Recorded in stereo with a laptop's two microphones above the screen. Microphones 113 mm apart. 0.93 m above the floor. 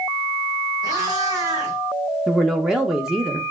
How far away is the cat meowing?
About 1.3 m.